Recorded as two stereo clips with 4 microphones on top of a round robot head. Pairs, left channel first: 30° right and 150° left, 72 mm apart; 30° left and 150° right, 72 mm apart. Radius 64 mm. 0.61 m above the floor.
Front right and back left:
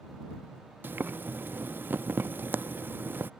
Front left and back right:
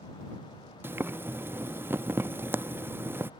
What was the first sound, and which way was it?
Boiling, 175° right.